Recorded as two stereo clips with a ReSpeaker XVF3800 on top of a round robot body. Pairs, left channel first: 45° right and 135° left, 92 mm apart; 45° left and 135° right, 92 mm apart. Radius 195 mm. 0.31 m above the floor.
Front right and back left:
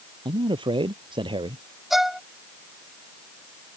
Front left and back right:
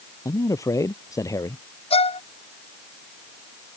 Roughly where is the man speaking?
Left.